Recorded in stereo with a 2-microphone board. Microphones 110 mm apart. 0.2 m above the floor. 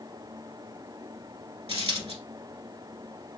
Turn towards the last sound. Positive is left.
turn(degrees=-65)  # may be behind; listen again after turning